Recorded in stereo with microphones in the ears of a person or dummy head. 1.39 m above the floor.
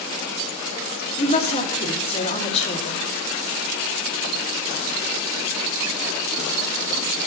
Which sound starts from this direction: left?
A woman speaking, at 1.2 s.